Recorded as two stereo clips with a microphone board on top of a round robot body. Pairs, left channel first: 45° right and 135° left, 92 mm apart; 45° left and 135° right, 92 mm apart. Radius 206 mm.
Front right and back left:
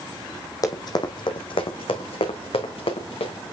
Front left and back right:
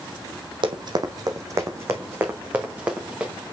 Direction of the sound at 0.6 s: 100° right.